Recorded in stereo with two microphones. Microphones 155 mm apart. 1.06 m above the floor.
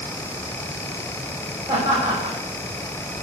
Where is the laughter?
30° right (ahead or behind), 6 m.